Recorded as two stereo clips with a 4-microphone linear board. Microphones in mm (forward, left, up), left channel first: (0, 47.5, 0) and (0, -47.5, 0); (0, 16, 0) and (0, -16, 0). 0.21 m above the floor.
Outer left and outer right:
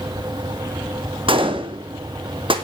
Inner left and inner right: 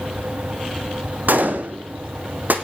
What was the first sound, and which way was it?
A gunshot, 60° right (ahead or behind).